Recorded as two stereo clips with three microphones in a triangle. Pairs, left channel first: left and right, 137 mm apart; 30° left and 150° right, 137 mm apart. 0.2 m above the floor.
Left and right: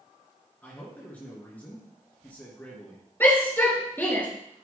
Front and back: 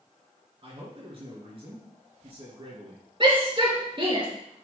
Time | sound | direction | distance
0.6 | a man speaking | 165° left | 3 m
3.2 | a shout | 165° left | 3.5 m